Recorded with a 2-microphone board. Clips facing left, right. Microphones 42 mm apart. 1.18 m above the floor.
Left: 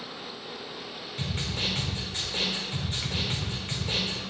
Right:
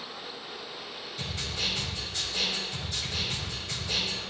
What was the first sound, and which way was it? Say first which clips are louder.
A snare drum: left 2 dB; 40° left (ahead or behind).